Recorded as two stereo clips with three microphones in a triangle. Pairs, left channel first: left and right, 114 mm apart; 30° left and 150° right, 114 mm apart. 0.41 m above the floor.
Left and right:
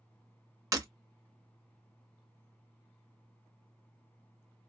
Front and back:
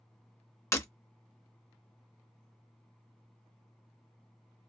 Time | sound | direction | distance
0.7 | breaking glass | 35° right | 0.6 m